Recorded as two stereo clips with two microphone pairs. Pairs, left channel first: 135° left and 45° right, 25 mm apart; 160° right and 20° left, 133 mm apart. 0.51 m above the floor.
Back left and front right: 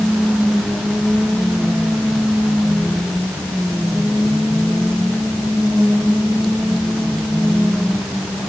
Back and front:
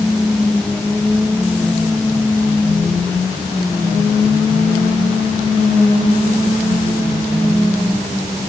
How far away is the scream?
I don't hear a scream.